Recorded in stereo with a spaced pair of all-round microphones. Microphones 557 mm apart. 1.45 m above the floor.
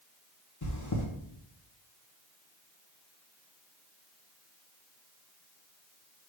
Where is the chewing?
30° left (ahead or behind), 1.1 m.